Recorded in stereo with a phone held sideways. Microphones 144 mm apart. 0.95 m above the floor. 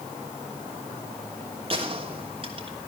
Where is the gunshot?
40° right (ahead or behind), 3 m.